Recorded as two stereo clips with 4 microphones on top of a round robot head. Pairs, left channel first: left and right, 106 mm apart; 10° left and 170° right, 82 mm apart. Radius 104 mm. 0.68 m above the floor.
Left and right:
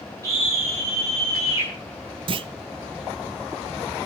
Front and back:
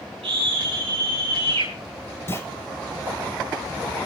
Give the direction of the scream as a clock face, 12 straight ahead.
5 o'clock.